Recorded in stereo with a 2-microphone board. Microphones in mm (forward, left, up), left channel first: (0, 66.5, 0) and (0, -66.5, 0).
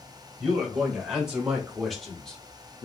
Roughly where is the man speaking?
Centre.